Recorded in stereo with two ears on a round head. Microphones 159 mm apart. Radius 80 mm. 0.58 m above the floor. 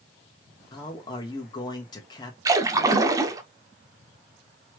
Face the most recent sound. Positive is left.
turn(degrees=-20)  # may be behind; listen again after turning